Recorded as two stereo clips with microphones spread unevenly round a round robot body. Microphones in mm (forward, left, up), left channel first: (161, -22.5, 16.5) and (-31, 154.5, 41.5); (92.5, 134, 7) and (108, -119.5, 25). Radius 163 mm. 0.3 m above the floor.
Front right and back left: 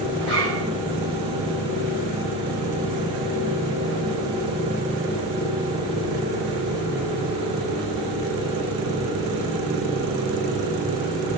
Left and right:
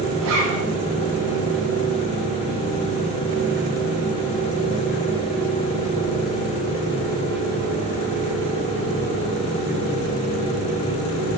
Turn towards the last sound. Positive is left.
turn(degrees=-115)